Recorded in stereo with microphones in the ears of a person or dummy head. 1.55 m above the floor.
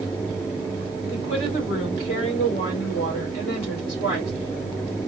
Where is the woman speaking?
35° left (ahead or behind), 1.7 m.